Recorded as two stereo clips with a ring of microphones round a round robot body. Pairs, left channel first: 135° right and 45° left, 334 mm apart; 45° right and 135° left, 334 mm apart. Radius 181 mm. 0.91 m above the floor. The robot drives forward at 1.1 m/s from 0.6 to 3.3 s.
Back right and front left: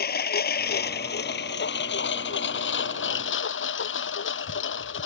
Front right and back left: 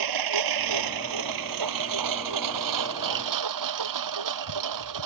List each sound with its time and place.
0.0 s a lawn mower: 160° left; by 5.1 s 170° left